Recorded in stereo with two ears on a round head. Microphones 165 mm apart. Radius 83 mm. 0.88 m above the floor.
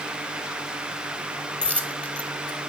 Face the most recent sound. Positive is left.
turn(degrees=5)  # may be behind; listen again after turning